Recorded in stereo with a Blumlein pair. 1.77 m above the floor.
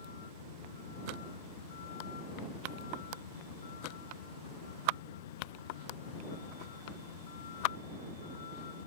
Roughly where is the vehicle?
Ahead left.